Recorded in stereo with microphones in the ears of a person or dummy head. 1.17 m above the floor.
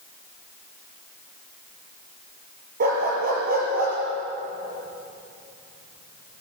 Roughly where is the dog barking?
Right.